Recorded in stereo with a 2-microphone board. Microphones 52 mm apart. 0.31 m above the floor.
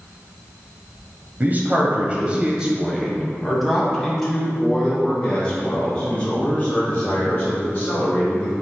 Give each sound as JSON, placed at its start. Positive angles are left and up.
{"t": 1.4, "sound": "a man speaking", "side_deg": -35, "distance_m": 1.6}